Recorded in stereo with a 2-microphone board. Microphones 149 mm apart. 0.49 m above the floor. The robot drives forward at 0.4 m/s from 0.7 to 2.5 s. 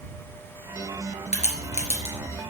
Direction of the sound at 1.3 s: 50° left (ahead or behind).